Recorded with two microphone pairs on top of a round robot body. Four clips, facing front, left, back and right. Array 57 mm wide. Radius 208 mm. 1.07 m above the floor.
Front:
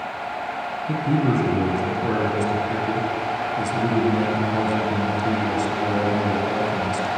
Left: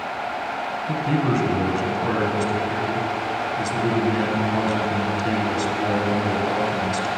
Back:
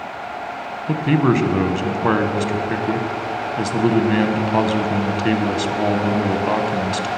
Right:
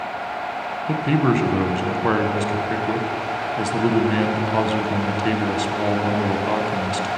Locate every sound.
0.9 s a man speaking: 150° right, 0.8 m